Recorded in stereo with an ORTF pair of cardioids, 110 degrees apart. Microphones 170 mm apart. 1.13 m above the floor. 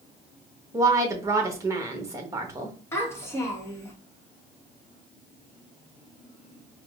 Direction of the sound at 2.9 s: 15° left.